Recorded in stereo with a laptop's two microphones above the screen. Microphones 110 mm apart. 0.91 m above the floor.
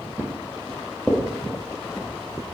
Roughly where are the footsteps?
Centre.